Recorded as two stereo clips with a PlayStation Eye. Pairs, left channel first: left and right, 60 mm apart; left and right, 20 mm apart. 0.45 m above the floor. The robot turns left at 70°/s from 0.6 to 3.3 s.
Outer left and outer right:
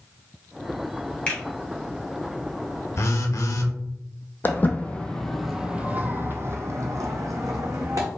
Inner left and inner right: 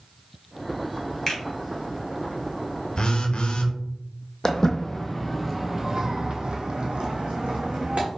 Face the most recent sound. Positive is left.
turn(degrees=-75)  # may be behind; listen again after turning